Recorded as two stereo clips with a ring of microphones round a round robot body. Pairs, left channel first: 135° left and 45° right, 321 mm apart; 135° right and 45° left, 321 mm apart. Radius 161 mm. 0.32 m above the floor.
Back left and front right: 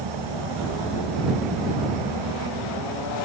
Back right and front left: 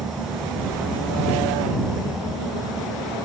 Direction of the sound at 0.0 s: 45° right.